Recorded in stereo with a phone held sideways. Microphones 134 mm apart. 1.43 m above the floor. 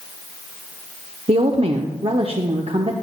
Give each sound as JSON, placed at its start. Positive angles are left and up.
{"t": 1.3, "sound": "a woman speaking", "side_deg": -50, "distance_m": 0.7}